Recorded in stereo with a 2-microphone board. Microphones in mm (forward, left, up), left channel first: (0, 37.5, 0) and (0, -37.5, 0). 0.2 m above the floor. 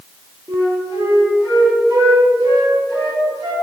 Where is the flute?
70° right (ahead or behind), 4 m.